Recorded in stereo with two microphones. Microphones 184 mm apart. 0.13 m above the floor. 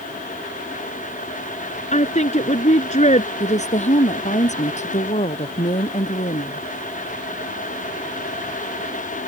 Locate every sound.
1.9 s a woman speaking: 40° left (ahead or behind)
3.4 s a woman speaking: 40° left (ahead or behind)